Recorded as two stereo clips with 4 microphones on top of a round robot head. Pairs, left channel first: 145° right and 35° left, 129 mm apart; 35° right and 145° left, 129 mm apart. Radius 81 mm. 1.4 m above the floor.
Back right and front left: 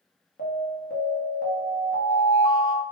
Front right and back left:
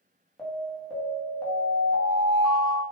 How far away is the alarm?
About 0.7 m.